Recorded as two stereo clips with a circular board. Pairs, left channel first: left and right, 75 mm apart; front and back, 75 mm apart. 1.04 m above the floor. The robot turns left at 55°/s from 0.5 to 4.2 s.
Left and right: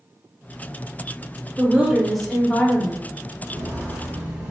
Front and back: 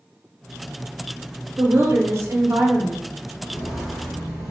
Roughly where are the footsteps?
Right.